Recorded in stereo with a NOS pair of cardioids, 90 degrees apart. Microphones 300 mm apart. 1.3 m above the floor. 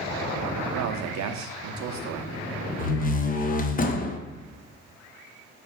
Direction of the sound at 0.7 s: 65° right.